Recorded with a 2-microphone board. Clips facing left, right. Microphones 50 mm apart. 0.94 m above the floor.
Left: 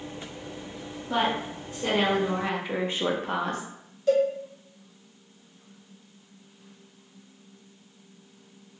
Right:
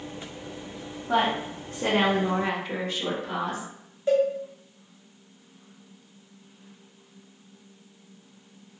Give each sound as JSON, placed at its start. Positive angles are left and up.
{"t": 1.1, "sound": "a woman speaking", "side_deg": -65, "distance_m": 1.1}
{"t": 4.1, "sound": "a cowbell", "side_deg": -25, "distance_m": 1.0}